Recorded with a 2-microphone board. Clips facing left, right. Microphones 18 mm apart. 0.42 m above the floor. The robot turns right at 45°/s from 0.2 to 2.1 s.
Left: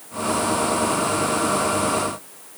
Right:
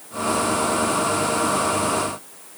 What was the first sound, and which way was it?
Only background noise.